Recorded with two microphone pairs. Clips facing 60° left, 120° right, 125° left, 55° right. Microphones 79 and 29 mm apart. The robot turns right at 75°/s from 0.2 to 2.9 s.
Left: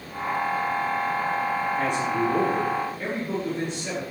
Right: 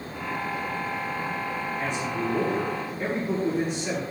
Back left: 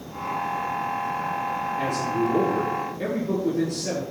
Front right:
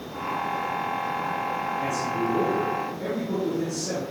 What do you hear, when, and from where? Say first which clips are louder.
1.8 s a man speaking: left 4 dB, back left 4 dB; 75° left, 5.5 m; by 4.0 s 160° left, 5.5 m